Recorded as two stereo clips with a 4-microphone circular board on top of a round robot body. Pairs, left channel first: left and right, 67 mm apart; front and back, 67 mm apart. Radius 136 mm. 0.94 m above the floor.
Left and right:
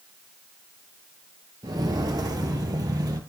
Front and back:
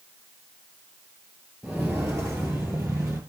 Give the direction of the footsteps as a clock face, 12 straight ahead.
4 o'clock.